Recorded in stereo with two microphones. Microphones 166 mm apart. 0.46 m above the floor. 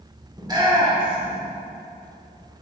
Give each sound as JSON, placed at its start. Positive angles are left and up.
{"t": 0.4, "sound": "a shout", "side_deg": -25, "distance_m": 1.7}